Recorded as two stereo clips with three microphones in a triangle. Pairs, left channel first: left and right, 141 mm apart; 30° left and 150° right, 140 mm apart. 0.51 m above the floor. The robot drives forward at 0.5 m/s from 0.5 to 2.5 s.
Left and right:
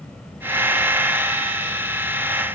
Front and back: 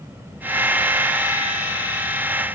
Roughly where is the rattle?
No rattle in this recording.